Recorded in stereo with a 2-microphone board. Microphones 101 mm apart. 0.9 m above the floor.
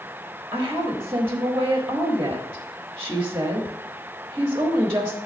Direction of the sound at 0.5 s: 25° right (ahead or behind).